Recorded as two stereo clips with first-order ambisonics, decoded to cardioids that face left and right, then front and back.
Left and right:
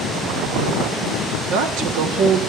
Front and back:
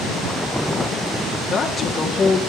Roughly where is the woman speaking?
Right.